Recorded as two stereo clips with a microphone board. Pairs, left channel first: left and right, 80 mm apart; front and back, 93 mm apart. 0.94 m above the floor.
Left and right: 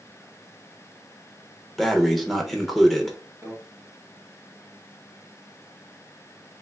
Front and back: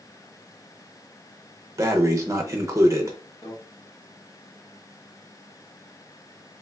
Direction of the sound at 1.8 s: Straight behind.